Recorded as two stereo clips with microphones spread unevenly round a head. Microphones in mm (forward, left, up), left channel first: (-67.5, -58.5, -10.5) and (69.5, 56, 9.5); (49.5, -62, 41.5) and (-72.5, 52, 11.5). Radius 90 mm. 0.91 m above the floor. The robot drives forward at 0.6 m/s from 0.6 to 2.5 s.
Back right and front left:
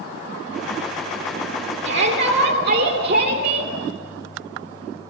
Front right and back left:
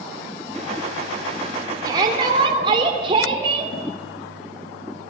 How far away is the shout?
About 3 m.